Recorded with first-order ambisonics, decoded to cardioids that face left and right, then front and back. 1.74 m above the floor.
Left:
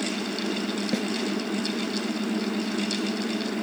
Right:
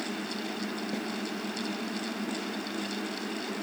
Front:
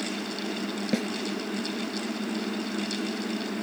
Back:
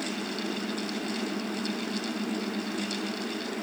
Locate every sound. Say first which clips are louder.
0.9 s a snare drum: left 6 dB, front 5 dB; 30° left